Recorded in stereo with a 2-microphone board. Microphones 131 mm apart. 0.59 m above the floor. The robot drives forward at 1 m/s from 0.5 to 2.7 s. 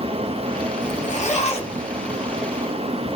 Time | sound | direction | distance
0.8 | a zipper | 85° left | 1.1 m